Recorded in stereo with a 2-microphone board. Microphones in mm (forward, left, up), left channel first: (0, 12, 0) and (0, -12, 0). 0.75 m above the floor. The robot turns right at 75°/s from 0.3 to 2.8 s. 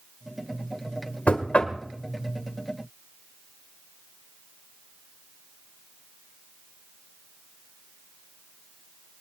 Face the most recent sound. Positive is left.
turn(degrees=-155)